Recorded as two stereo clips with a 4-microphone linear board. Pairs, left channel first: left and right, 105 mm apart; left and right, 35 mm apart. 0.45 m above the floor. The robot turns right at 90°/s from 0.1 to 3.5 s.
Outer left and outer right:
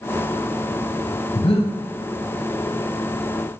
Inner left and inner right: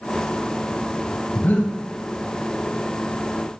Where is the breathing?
70° left, 1.7 m; by 1.7 s 105° left, 1.7 m.